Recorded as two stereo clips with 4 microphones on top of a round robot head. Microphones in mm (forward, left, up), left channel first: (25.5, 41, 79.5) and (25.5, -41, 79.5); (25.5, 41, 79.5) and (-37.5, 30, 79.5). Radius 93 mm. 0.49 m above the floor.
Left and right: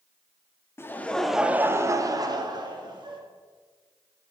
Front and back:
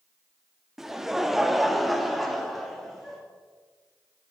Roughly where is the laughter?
Left.